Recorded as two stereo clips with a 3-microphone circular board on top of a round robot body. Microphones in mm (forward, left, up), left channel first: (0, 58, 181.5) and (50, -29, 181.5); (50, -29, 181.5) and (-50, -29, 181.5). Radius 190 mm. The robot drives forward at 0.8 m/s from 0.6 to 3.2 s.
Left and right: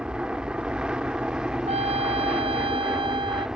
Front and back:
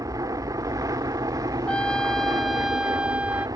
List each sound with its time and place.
0.0 s an aircraft: 140° right
1.7 s a trumpet: 80° right; by 3.5 s 100° right